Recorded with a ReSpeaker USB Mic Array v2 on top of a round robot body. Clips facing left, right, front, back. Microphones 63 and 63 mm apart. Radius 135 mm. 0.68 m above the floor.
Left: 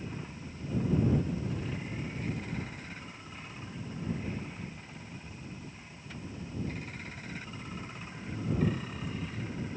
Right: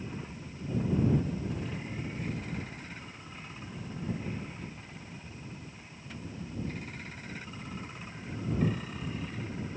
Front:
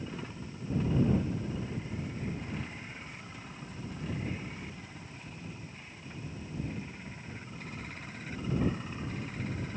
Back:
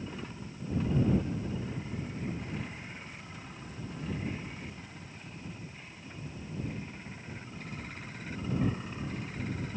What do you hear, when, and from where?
Only background noise.